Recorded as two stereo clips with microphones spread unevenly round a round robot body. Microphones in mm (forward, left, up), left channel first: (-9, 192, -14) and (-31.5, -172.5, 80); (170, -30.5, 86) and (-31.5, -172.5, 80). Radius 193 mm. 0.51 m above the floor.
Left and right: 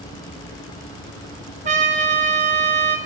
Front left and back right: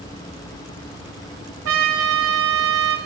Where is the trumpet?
170° right, 0.9 m.